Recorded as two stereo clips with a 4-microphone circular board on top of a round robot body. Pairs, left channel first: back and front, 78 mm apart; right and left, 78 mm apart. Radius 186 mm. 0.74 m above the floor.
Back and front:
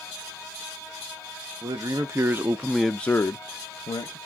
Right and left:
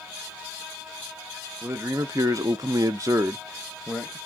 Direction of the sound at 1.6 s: 35° left.